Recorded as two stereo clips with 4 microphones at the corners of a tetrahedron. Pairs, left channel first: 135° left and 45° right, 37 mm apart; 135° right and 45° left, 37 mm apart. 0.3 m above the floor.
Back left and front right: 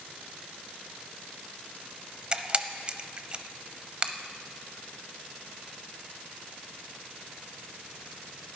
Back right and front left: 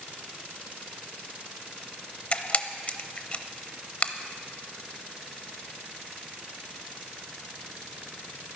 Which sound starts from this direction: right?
A camera shutter, at 2.3 s.